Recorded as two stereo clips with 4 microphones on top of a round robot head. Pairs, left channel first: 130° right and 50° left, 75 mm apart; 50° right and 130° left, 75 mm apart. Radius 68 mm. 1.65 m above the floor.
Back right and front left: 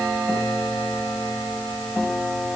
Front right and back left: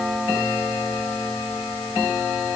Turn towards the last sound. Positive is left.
No sound to turn to.